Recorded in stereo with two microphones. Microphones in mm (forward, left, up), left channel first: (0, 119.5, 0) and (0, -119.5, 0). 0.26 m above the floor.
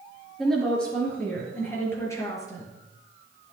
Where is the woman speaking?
Centre (ahead or behind), 4.5 m; by 2.7 s 15° left (ahead or behind), 4.5 m.